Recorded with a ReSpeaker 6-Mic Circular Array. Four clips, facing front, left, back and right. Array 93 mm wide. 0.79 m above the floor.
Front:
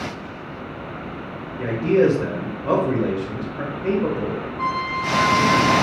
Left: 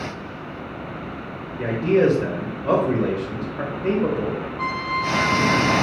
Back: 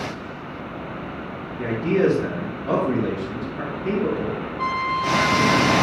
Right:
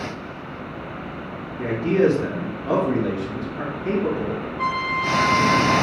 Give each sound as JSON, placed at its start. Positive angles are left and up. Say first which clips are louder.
{"t": 1.6, "sound": "a man speaking", "louder": "left 1 dB, front 3 dB", "azimuth_deg": 55, "distance_m": 3.0}
{"t": 4.6, "sound": "a trumpet", "louder": "right 3 dB, back 1 dB", "azimuth_deg": 65, "distance_m": 2.5}